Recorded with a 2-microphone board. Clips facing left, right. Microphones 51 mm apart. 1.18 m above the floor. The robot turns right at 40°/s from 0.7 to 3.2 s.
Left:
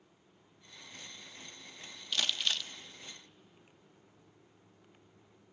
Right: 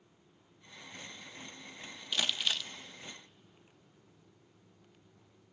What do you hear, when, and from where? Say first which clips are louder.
2.1 s crumpling: even; 10° right (ahead or behind), 0.6 m; by 2.7 s 5° right (ahead or behind), 0.6 m